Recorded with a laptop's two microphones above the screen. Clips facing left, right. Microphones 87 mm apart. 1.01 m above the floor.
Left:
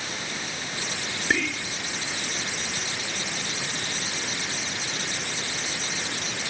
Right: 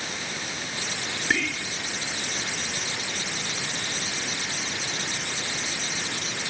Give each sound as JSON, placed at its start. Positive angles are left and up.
{"t": 1.3, "sound": "whispering", "side_deg": 10}